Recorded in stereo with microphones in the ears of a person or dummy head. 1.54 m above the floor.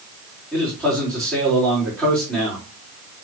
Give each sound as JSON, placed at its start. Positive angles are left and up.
{"t": 0.5, "sound": "a man speaking", "side_deg": 10, "distance_m": 4.0}